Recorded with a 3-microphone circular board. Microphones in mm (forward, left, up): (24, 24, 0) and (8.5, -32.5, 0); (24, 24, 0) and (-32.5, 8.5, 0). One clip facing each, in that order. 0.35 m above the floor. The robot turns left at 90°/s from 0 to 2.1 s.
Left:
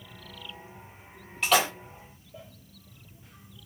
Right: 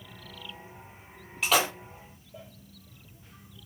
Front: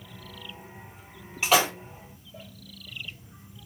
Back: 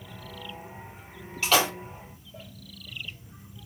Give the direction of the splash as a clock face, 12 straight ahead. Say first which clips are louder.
Left 1 dB, front 1 dB; 1 o'clock.